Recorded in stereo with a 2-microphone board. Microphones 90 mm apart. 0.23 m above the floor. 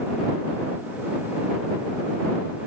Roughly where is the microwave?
I don't hear a microwave.